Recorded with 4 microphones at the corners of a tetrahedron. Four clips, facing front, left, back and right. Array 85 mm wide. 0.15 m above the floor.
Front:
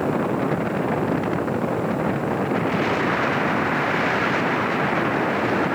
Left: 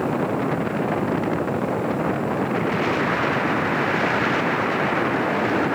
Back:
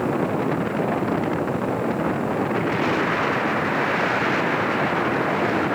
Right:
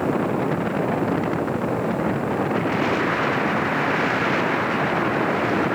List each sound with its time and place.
Only background noise.